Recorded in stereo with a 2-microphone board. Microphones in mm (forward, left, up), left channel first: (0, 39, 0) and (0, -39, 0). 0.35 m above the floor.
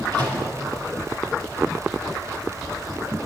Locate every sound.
0.1 s a microwave: 70° right (ahead or behind), 4.5 m